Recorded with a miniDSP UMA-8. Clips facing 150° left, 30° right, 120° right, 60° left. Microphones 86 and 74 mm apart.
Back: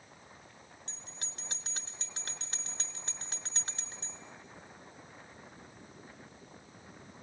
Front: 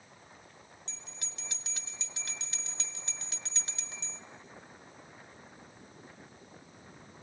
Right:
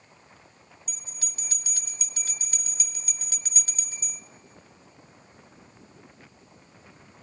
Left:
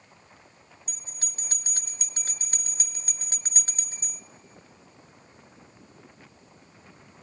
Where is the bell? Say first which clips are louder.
Back 1 dB, even; 110° left, 0.7 m.